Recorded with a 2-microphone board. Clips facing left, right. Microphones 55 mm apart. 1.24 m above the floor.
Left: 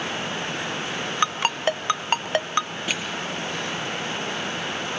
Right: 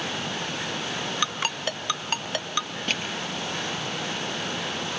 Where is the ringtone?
35° left (ahead or behind), 0.7 m.